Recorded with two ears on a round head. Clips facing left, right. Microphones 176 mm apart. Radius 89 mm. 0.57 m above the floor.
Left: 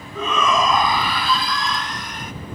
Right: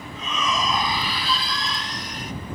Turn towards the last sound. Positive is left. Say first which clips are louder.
# left 8 dB
turn(degrees=45)  # may be behind; listen again after turning